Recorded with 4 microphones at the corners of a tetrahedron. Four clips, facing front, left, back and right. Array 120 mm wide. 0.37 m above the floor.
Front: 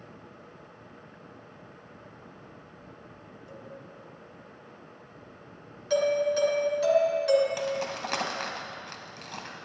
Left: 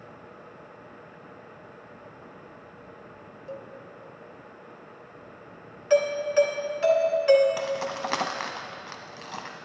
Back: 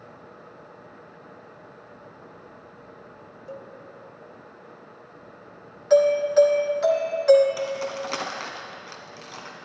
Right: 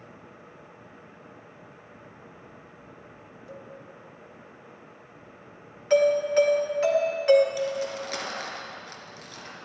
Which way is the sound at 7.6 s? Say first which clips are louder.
Even, back 2 dB; 80° left.